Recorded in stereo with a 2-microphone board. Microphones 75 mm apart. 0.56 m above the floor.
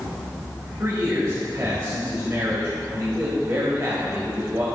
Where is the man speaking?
45° right (ahead or behind), 2 m.